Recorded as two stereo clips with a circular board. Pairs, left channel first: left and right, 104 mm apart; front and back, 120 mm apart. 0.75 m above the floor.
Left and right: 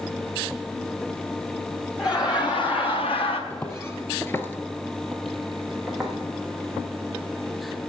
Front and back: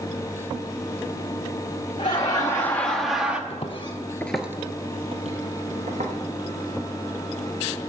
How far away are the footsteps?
About 1.4 m.